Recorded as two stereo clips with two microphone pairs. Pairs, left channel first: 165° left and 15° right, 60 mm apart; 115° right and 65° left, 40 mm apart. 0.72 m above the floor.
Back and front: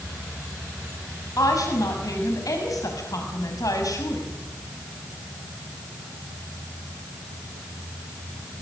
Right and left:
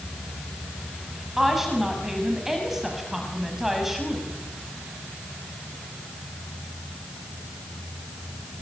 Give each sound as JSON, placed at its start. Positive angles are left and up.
{"t": 1.4, "sound": "a woman speaking", "azimuth_deg": 150, "distance_m": 6.0}